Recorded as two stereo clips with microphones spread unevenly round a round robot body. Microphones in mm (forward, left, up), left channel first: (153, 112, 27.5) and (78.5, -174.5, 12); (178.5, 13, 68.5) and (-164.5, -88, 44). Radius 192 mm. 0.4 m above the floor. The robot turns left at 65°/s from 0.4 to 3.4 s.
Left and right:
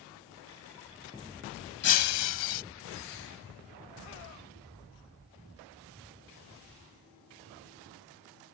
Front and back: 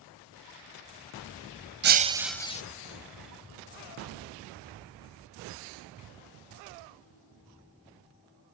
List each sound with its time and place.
1.8 s breaking glass: 140° left; by 2.6 s 85° left